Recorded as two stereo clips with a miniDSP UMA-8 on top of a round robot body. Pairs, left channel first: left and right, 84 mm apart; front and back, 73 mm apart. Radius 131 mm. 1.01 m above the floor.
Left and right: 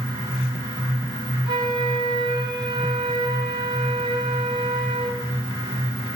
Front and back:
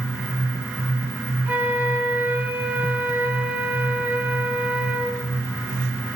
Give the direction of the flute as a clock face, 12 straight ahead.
4 o'clock.